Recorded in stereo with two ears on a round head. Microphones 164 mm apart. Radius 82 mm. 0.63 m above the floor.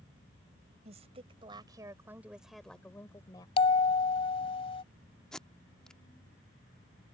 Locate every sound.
0.8 s a woman speaking: 40° right (ahead or behind); by 3.5 s 25° left (ahead or behind)
3.6 s a bell: 30° left (ahead or behind)
5.3 s tape being pulled: 5° left (ahead or behind)